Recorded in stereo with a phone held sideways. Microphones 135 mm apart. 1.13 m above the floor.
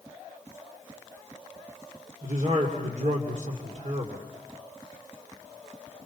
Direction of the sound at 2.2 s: 65° right (ahead or behind).